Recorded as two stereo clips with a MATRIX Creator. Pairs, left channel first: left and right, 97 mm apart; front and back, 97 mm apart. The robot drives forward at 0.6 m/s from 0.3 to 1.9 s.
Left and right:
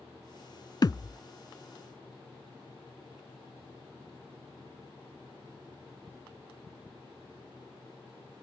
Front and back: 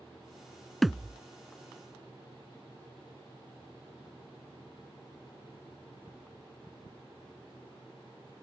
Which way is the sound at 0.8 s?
85° left.